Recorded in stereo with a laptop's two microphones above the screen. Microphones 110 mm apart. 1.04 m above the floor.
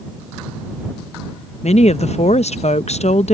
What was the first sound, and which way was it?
A woman speaking, 75° left (ahead or behind).